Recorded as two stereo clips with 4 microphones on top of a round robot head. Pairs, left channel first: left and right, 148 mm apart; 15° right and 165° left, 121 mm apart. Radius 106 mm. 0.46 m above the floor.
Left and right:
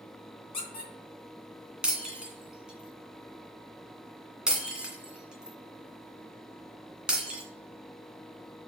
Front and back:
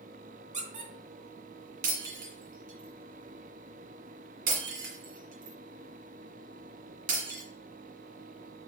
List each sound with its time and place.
0.5 s a squeak: 140° left, 2.5 m
1.8 s breaking glass: 175° right, 2 m